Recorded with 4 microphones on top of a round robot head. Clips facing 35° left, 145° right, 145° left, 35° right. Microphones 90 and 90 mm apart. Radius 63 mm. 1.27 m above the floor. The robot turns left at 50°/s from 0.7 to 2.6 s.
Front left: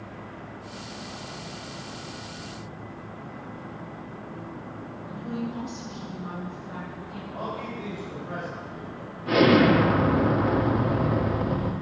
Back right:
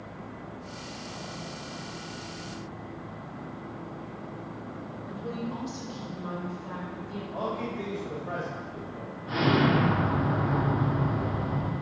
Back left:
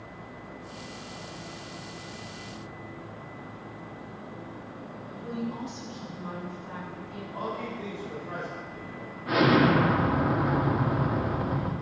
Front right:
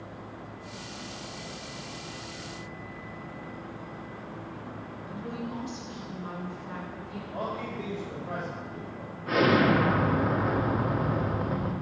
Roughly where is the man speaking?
Right.